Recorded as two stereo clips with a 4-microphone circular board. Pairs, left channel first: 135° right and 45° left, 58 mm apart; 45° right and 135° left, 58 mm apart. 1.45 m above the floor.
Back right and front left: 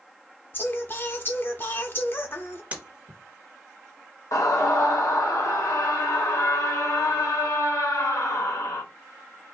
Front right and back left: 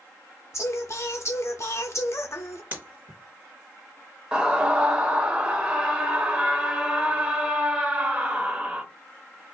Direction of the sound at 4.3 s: 155° right.